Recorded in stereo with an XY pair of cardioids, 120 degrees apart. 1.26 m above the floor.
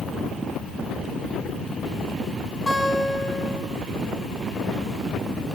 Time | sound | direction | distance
2.7 | a guitar | 10° left | 8.5 m